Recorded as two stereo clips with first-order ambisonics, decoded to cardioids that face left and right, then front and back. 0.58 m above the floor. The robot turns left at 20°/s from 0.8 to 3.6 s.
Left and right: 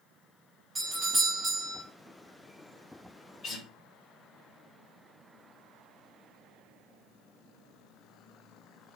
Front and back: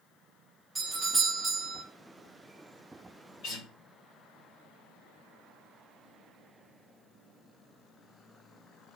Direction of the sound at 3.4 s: 25° left.